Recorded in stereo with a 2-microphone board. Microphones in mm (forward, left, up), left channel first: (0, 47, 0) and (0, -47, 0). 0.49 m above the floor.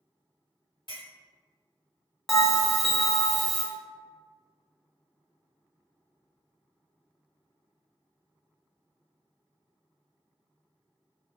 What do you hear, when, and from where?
0.9 s a clink: 55° left (ahead or behind), 1.4 m
2.3 s a bell: centre (ahead or behind), 0.6 m